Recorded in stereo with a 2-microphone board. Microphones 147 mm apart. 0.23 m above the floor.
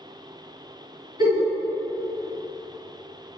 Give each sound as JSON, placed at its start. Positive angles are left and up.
{"t": 1.2, "sound": "a giggle", "side_deg": -30, "distance_m": 1.9}